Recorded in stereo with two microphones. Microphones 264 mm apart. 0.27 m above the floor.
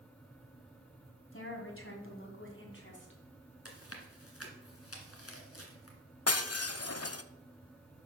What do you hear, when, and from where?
1.3 s a woman speaking: 50° left (ahead or behind), 2.0 m; by 3.2 s 45° left (ahead or behind), 2.5 m
3.6 s chewing: 60° left (ahead or behind), 1.6 m
6.3 s breaking glass: 65° left (ahead or behind), 0.5 m